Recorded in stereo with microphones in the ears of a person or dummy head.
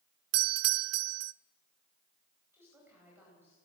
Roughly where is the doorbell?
Right.